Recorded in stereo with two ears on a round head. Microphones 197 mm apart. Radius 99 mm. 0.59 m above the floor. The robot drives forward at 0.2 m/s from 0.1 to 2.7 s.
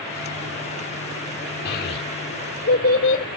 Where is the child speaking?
50° left (ahead or behind), 1.3 m; by 3.2 s 45° left (ahead or behind), 1.4 m.